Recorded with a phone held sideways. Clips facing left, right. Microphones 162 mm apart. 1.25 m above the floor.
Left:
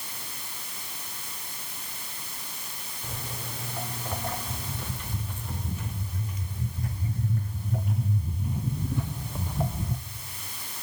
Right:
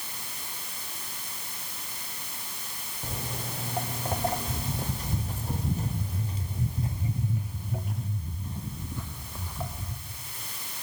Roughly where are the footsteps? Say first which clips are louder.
Right 3 dB; right.